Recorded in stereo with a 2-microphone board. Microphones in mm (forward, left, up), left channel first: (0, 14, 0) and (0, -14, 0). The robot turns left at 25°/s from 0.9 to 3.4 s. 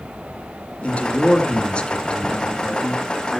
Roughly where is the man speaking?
Left.